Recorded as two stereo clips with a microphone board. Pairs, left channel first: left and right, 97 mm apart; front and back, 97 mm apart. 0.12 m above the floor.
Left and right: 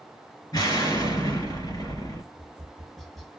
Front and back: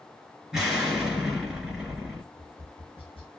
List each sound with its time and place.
0.5 s an explosion: 95° left, 2.0 m
2.3 s tapping: straight ahead, 0.8 m